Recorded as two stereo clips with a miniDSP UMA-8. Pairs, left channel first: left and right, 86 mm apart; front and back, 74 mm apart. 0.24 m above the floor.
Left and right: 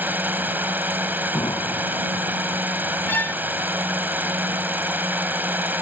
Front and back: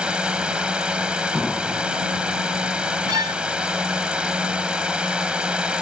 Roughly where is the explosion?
Left.